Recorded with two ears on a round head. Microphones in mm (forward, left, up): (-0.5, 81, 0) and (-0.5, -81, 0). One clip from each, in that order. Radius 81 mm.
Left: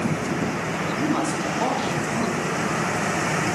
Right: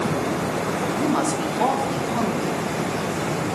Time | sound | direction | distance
1.0 | a woman speaking | centre (ahead or behind) | 0.8 m